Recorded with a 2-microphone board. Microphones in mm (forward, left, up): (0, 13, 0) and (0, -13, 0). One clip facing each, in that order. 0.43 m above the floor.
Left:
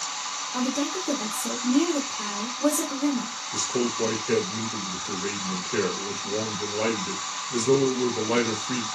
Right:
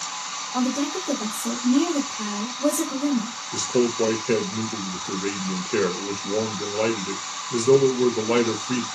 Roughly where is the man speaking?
Right.